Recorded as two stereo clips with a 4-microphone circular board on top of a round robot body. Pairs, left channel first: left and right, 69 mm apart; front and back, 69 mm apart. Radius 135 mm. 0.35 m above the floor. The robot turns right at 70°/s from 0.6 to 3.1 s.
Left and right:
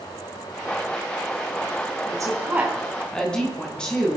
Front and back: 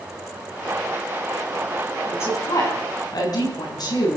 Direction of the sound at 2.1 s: 60° right.